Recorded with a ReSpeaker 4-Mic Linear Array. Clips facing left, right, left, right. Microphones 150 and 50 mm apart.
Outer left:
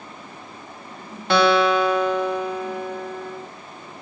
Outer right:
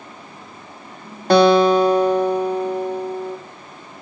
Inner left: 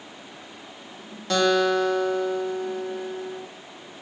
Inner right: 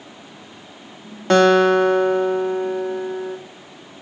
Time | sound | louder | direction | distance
1.3 | a guitar | outer right 5 dB, inner right 7 dB | 40° right (ahead or behind) | 2 m